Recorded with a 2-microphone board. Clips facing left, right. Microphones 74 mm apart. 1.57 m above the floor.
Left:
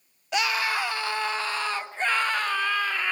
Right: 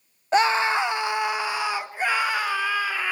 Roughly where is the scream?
Right.